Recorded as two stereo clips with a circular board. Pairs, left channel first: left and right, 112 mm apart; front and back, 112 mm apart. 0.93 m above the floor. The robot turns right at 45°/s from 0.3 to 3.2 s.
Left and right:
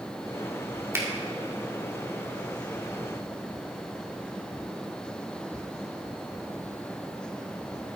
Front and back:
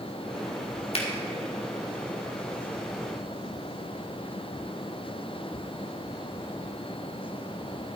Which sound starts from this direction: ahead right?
A finger snap, at 0.9 s.